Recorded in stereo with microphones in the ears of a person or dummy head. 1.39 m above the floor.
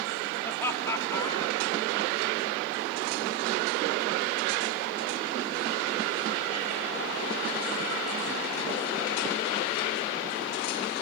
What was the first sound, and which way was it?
Laughter, 10° left (ahead or behind).